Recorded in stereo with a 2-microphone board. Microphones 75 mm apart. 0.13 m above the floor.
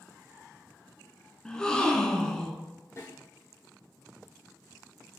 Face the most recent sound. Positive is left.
turn(degrees=40)  # may be behind; listen again after turning